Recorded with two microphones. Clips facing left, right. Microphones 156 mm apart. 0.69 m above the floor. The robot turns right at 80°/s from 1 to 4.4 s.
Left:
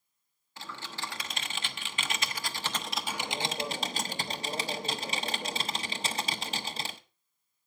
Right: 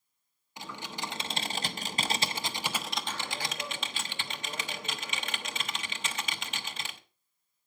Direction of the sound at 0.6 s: 155° right.